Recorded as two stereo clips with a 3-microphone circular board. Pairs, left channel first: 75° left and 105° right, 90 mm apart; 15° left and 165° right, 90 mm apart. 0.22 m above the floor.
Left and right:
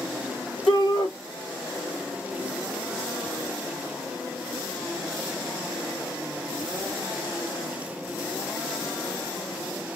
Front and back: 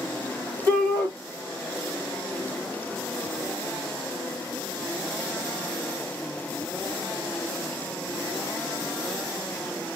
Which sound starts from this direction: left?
A shout, at 0.7 s.